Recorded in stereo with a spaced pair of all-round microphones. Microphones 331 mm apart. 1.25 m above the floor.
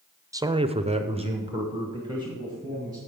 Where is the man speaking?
10° right (ahead or behind), 0.5 m.